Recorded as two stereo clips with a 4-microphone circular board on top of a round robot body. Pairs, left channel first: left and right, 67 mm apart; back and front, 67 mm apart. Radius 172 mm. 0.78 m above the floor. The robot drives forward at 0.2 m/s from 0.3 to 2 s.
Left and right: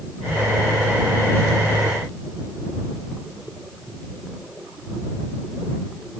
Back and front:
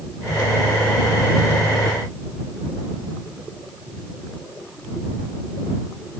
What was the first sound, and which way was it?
Only background noise.